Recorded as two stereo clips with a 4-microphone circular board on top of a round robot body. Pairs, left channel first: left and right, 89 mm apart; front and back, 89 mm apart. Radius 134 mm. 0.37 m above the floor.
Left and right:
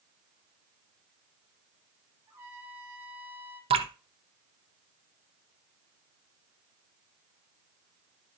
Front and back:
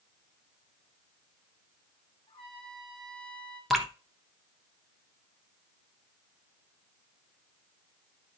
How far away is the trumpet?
About 3.5 m.